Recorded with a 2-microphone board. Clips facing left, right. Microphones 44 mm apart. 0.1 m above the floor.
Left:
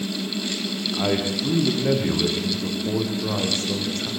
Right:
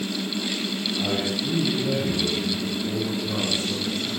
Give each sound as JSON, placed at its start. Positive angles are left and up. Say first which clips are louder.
{"t": 0.9, "sound": "a man speaking", "louder": "left 4 dB", "side_deg": 65, "distance_m": 8.0}